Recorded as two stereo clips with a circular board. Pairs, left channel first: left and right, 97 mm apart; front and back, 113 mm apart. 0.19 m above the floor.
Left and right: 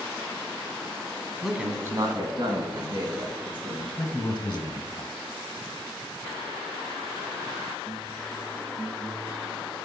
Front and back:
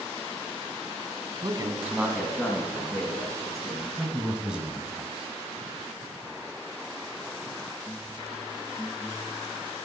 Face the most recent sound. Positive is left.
turn(degrees=95)